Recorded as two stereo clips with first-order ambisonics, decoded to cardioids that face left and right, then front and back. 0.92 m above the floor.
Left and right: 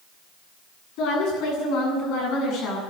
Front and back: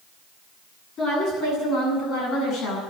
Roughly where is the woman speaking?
Ahead left.